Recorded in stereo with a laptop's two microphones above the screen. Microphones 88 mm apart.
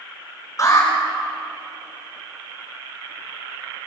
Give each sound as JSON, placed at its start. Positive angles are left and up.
{"t": 0.6, "sound": "an alarm", "side_deg": 40, "distance_m": 6.5}